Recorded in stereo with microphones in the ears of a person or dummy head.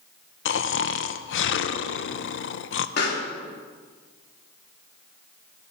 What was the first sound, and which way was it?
Snoring, 65° left (ahead or behind).